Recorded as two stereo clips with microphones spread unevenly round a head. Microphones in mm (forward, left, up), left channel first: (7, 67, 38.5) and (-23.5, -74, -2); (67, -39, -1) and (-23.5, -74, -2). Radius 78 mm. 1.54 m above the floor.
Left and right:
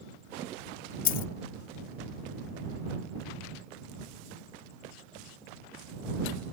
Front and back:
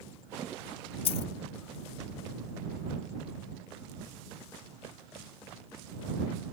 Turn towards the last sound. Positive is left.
turn(degrees=50)